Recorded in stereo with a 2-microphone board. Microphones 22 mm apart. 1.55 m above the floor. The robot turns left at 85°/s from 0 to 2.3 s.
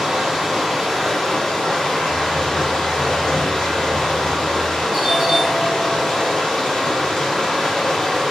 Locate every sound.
0.0 s running water: 110° right, 1.7 m; by 8.3 s 55° left, 1.7 m
2.1 s typing on a keyboard: 45° right (ahead or behind), 0.7 m; by 4.8 s 30° right (ahead or behind), 0.7 m
4.9 s a doorbell: 30° right (ahead or behind), 1.0 m